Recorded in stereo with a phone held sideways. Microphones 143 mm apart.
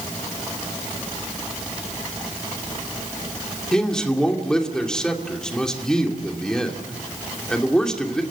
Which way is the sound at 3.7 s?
5° left (ahead or behind).